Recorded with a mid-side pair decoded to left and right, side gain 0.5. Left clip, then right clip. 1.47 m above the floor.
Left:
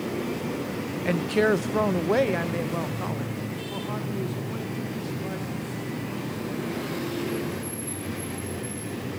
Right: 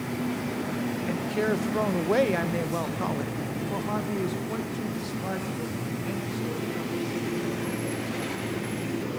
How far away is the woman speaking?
About 0.5 m.